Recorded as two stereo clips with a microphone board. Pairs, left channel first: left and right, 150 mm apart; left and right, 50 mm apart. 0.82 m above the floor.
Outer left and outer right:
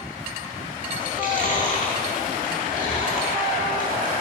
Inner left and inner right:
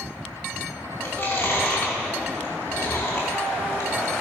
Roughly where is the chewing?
Left.